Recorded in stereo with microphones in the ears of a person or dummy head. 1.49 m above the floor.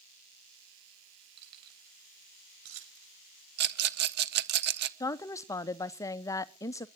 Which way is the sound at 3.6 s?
55° right (ahead or behind).